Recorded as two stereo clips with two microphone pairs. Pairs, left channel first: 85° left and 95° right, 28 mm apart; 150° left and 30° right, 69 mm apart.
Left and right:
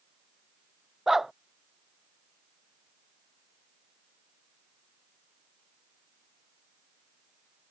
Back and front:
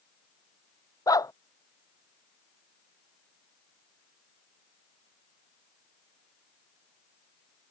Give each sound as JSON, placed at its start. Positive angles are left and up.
{"t": 1.1, "sound": "a dog barking", "azimuth_deg": -175}